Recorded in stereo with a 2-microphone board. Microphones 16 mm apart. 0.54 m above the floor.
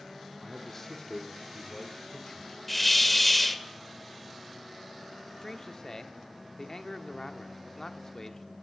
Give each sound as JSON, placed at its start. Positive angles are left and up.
{"t": 0.4, "sound": "a man speaking", "side_deg": 10, "distance_m": 1.4}
{"t": 2.7, "sound": "a hiss", "side_deg": 15, "distance_m": 0.6}
{"t": 5.4, "sound": "a man speaking", "side_deg": 30, "distance_m": 0.9}